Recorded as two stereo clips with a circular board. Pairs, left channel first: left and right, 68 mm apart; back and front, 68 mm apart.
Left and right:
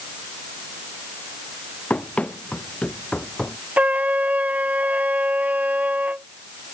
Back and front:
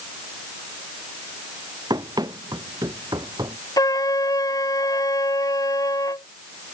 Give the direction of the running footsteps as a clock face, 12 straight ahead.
11 o'clock.